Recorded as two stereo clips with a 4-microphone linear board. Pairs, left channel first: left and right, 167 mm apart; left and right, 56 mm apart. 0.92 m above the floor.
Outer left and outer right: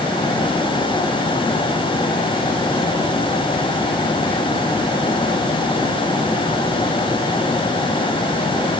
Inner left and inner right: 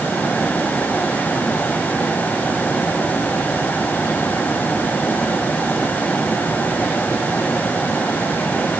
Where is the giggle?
I don't hear a giggle.